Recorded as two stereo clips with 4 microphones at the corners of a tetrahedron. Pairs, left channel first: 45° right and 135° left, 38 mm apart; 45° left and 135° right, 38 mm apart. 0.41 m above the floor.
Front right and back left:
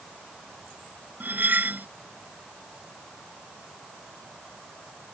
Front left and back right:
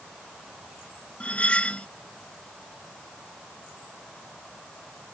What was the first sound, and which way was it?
Cutlery clinking, 105° left.